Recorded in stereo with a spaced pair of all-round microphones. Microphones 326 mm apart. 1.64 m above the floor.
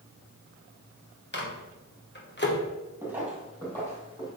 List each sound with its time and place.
1.3 s a microwave: 35° left (ahead or behind), 1.3 m
3.0 s footsteps: 10° right (ahead or behind), 2.5 m; by 4.3 s 10° left (ahead or behind), 3.5 m